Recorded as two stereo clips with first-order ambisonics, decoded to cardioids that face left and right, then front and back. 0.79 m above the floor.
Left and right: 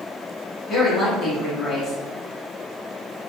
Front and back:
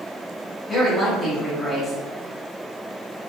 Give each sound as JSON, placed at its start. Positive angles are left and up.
{"t": 0.7, "sound": "a woman speaking", "azimuth_deg": 60, "distance_m": 0.8}